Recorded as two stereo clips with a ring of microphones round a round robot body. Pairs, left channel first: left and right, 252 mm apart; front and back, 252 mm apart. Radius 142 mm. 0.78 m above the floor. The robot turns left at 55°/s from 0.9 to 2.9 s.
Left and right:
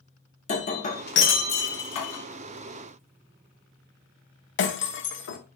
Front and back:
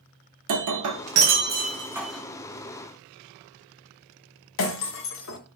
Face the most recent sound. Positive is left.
turn(degrees=45)